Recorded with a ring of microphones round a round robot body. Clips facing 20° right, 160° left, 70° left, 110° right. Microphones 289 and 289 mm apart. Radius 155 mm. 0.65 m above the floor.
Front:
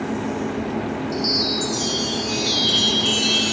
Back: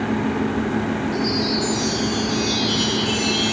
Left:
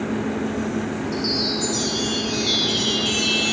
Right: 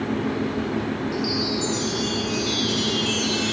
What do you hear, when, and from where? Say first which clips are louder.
1.1 s a chime: back 3 dB, even; 15° right, 1.2 m